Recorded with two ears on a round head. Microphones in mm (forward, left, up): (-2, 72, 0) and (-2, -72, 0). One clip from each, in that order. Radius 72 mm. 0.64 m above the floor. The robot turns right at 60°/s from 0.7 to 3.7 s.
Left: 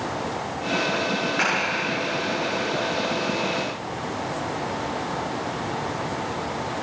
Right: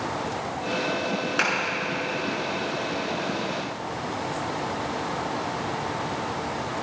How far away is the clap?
About 7 m.